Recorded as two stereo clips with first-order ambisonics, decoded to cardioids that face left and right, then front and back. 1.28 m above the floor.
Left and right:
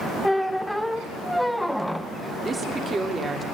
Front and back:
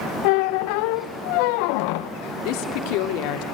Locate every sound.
0.2 s a squeak: straight ahead, 0.6 m
2.5 s a woman speaking: 15° right, 2.5 m